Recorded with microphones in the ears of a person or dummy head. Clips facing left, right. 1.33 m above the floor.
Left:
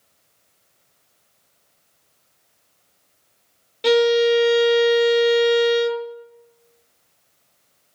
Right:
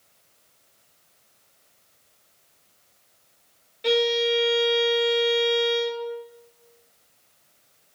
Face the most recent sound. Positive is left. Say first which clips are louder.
# left 7 dB
turn(degrees=65)  # may be behind; listen again after turning